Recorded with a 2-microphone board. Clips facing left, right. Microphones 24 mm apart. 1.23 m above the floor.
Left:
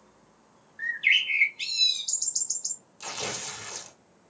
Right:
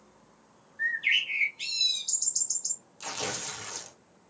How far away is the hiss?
No hiss in this recording.